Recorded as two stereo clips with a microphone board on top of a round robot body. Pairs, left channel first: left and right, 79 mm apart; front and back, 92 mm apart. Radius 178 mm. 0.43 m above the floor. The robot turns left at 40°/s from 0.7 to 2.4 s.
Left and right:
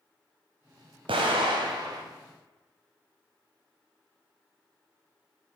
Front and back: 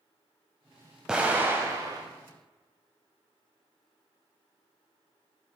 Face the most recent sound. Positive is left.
turn(degrees=-150)